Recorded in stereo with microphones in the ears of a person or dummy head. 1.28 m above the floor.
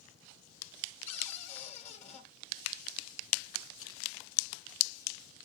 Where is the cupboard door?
40° left (ahead or behind), 3 m.